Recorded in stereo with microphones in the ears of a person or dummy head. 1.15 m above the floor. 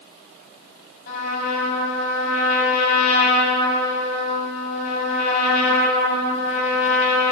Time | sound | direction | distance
1.1 | a trumpet | 60° left (ahead or behind) | 6 m